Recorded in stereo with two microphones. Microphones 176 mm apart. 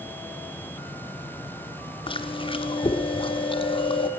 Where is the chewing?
30° left (ahead or behind), 0.8 m.